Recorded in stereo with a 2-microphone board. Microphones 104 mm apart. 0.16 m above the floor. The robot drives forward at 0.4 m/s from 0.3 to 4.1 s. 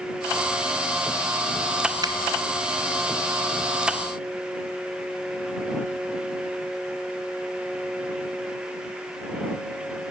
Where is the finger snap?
40° right (ahead or behind), 1.2 m.